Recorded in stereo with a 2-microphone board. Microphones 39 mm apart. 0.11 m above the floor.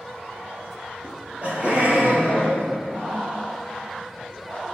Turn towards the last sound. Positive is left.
turn(degrees=-55)  # may be behind; listen again after turning